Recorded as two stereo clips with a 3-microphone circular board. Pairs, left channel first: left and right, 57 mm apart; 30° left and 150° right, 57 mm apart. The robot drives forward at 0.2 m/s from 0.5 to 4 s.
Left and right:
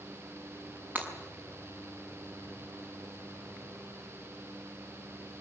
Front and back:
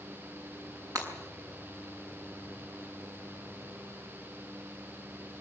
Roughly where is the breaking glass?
Behind right.